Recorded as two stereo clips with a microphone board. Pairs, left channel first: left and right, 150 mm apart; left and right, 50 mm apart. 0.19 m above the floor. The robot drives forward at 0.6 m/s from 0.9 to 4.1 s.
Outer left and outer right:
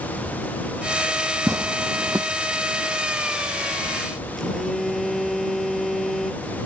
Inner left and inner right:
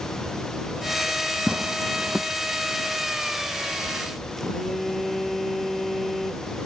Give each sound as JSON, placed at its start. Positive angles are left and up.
{"t": 1.5, "sound": "tearing paper", "side_deg": -20}
{"t": 4.4, "sound": "a phone buzzing", "side_deg": 0}